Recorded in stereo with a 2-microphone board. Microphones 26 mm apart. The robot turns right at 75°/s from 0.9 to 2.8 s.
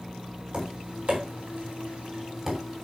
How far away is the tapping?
About 3.5 m.